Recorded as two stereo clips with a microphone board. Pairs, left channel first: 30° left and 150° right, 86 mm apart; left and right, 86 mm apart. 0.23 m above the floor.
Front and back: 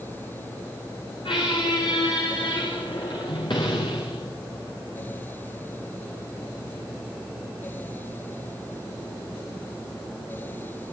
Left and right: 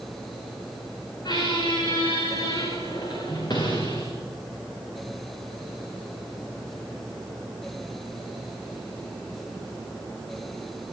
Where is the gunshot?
I don't hear a gunshot.